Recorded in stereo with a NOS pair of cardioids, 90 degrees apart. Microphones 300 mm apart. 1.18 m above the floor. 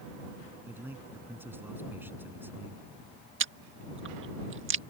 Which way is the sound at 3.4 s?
40° right.